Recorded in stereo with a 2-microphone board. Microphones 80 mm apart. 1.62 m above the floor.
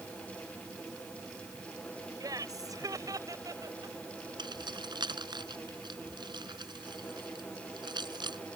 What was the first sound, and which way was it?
Laughter, 55° right (ahead or behind).